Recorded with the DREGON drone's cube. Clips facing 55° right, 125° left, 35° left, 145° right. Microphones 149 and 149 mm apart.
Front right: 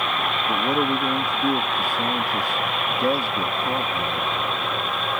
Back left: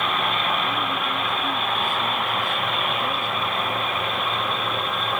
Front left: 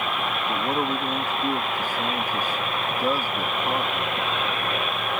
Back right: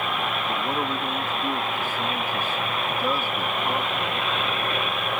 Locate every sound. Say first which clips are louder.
0.5 s a man speaking: front right 4 dB, front left 4 dB; 40° right